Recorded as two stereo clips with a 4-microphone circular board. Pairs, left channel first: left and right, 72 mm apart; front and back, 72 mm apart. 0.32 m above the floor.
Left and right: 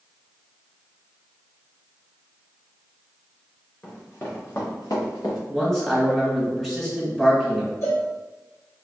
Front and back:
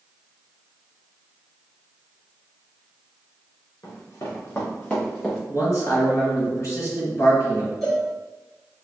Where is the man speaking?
10° left, 1.8 m.